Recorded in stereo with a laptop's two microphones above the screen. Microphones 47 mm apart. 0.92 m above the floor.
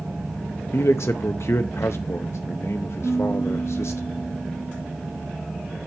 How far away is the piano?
About 4 m.